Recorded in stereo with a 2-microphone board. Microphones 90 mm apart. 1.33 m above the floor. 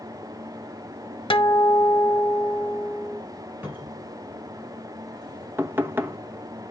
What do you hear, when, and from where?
1.3 s a guitar: 70° left (ahead or behind), 1.0 m
3.6 s a cupboard door: 20° right (ahead or behind), 5.5 m
5.6 s knocking: 25° right (ahead or behind), 1.0 m